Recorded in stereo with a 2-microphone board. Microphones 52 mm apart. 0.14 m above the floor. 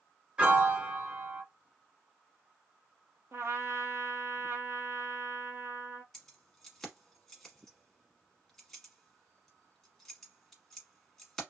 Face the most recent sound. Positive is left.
turn(degrees=10)  # may be behind; listen again after turning